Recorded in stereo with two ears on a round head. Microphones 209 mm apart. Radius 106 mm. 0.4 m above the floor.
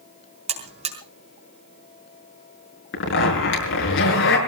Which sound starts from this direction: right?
A buzzer, at 0.5 s.